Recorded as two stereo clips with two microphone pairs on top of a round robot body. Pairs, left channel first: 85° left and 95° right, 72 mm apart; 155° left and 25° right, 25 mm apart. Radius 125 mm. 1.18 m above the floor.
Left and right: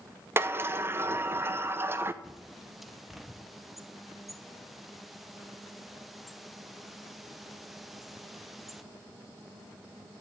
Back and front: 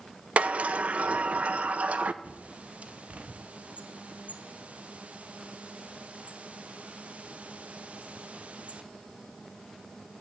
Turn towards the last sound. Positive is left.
turn(degrees=-5)